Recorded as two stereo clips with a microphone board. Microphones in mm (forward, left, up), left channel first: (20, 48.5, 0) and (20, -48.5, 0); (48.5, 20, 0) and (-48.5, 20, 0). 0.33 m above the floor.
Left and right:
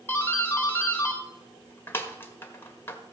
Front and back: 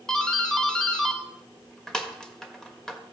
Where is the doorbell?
75° left, 1.4 m.